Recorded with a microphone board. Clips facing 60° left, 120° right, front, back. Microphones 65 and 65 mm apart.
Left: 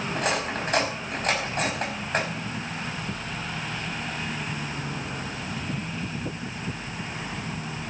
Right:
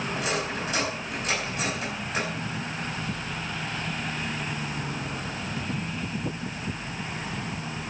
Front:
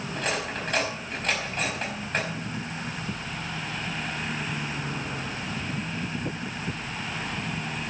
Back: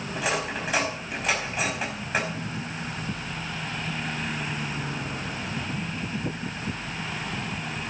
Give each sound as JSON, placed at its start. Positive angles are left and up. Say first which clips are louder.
{"t": 0.1, "sound": "cutlery clinking", "louder": "left 4 dB, back 2 dB", "azimuth_deg": 95, "distance_m": 4.5}